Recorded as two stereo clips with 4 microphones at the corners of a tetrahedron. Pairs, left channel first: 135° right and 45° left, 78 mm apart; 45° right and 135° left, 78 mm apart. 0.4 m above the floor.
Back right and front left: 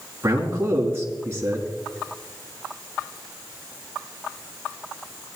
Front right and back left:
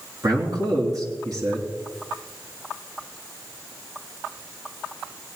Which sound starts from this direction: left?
A man speaking, at 0.2 s.